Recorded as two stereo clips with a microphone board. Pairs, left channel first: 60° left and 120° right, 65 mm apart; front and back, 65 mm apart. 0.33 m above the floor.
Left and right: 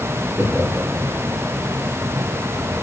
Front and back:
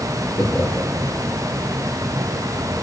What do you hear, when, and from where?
0.3 s laughter: 75° right, 8.5 m